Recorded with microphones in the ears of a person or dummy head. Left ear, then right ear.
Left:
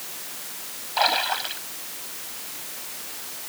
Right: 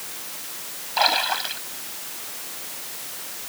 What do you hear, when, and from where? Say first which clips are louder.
1.0 s a splash: right 1 dB; 5° right (ahead or behind)